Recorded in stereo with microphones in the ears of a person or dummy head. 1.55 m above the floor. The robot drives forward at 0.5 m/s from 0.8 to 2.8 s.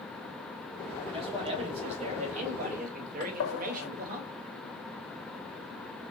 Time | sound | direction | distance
1.1 | a man speaking | 30° right (ahead or behind) | 1.9 m
3.2 | a gunshot | 75° left (ahead or behind) | 0.9 m